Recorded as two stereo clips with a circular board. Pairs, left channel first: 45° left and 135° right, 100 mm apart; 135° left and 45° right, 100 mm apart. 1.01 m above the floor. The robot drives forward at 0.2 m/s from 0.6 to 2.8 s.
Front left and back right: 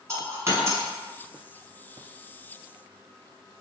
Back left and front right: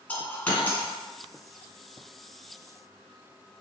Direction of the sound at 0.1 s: 165° right.